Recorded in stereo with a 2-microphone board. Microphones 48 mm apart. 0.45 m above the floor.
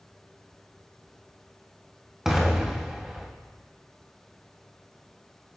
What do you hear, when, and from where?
2.2 s an explosion: 10° right (ahead or behind), 2 m